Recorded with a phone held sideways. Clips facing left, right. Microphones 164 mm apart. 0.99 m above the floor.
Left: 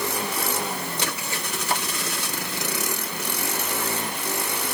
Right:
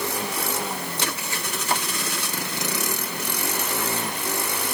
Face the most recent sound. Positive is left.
No sound to turn to.